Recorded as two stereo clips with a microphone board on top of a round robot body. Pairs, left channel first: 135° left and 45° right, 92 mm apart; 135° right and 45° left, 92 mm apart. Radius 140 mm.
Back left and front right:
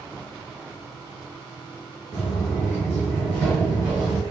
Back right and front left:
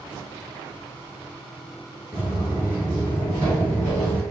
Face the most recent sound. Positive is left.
turn(degrees=-60)